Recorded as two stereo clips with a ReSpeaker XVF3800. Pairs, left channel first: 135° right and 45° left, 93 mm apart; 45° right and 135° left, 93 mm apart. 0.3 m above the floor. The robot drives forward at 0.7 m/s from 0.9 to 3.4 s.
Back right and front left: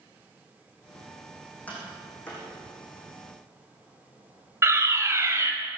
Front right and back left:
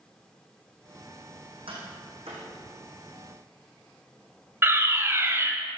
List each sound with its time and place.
1.7 s tapping: 150° left, 6.5 m; by 2.5 s 155° left, 7 m
4.6 s a fire alarm: 85° left, 2.5 m